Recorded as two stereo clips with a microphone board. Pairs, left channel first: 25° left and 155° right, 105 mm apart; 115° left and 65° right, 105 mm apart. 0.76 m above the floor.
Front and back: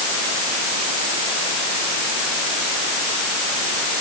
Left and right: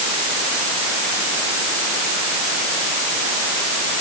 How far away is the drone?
I don't hear a drone.